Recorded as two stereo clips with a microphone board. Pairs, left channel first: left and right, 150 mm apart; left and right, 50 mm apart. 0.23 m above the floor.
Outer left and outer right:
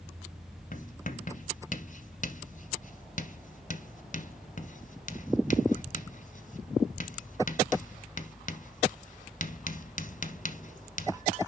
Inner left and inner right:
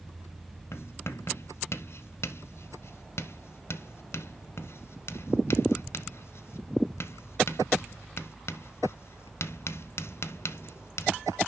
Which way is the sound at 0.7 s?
60° left (ahead or behind).